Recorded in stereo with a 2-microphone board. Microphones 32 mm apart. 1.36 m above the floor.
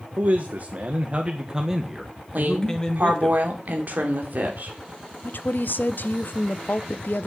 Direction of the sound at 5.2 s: 70° left (ahead or behind).